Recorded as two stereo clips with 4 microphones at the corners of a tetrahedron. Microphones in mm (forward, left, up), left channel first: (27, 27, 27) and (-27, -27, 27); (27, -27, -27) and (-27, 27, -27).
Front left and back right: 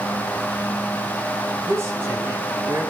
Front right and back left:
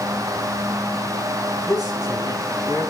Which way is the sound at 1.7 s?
165° left.